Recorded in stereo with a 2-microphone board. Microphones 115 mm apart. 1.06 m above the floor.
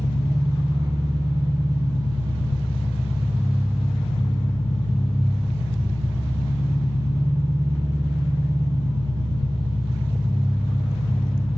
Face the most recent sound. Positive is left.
turn(degrees=-25)  # may be behind; listen again after turning